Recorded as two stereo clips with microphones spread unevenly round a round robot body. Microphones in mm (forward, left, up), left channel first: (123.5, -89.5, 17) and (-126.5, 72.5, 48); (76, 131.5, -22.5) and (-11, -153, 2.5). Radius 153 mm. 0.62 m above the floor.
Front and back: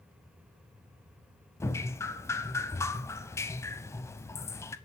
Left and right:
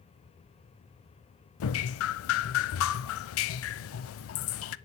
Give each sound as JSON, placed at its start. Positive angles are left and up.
{"t": 1.6, "sound": "dripping", "azimuth_deg": 50, "distance_m": 0.5}